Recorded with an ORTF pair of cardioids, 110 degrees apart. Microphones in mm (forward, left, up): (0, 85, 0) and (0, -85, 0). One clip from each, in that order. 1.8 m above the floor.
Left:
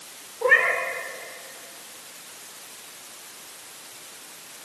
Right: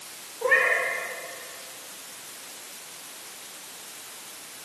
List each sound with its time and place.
0.4 s a cat meowing: 30° left, 3.5 m